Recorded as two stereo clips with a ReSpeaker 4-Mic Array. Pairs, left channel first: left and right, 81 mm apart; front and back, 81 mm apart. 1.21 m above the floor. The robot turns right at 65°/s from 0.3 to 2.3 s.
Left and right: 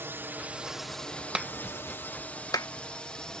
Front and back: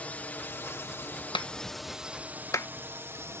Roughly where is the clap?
Ahead.